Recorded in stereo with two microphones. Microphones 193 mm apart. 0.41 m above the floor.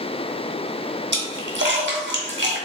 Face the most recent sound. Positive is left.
turn(degrees=-70)  # may be behind; listen again after turning